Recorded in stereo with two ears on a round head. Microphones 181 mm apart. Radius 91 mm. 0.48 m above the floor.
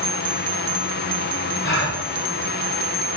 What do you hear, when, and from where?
1.6 s a gasp: 60° left (ahead or behind), 1.8 m